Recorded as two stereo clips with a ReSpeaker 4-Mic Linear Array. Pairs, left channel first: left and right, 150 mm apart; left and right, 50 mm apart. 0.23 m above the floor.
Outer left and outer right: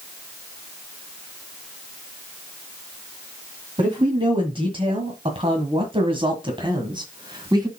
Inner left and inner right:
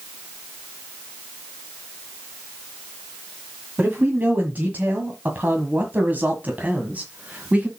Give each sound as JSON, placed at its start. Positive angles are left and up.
{"t": 3.8, "sound": "a man speaking", "side_deg": -35, "distance_m": 1.9}